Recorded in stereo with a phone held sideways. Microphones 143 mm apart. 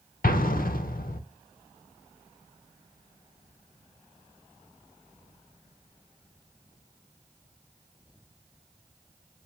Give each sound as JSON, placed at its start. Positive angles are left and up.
{"t": 0.2, "sound": "an explosion", "side_deg": 80, "distance_m": 0.6}